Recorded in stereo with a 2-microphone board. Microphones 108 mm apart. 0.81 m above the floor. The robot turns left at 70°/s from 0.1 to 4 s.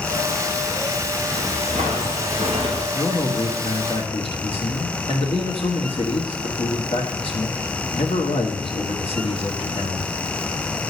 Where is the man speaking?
165° left, 1.4 m; by 10.2 s 95° left, 1.4 m.